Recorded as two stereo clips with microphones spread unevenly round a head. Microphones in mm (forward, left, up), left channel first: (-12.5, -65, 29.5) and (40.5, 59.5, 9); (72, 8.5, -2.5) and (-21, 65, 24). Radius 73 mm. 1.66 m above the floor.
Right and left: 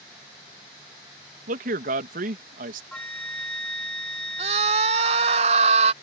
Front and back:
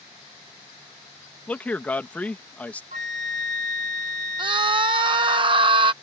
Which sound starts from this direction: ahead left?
A man speaking, at 1.5 s.